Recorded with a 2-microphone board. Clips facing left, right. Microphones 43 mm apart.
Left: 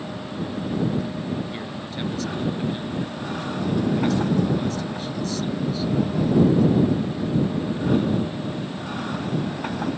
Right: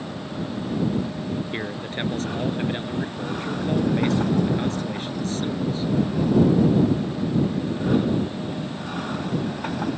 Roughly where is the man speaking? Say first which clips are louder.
Right 2 dB; right.